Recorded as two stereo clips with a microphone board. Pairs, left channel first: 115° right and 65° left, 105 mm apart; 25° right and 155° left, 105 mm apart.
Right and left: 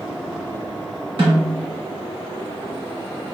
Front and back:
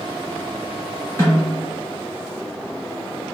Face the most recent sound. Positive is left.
turn(degrees=35)